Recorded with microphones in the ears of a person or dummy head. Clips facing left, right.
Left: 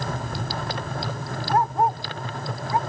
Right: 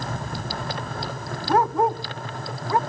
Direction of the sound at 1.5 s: 65° right (ahead or behind).